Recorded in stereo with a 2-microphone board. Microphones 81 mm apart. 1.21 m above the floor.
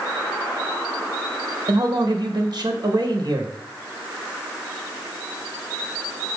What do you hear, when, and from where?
1.7 s a man speaking: 60° right (ahead or behind), 1.3 m